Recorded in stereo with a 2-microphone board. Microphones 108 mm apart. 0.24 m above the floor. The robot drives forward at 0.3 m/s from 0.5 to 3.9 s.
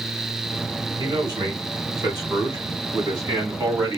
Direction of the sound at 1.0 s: 40° right (ahead or behind).